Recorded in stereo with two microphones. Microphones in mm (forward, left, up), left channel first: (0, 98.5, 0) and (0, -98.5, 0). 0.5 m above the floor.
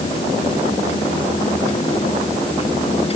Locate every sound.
Only background noise.